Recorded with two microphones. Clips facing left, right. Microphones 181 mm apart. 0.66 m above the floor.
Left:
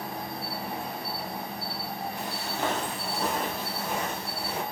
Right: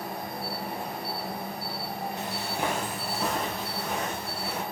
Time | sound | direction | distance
0.0 | an insect | 55° right (ahead or behind) | 1.6 m
2.2 | footsteps | 25° right (ahead or behind) | 0.7 m